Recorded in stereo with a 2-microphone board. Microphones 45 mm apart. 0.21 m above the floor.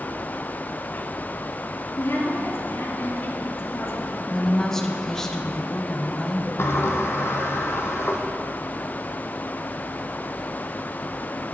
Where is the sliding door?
65° left (ahead or behind), 1.7 m.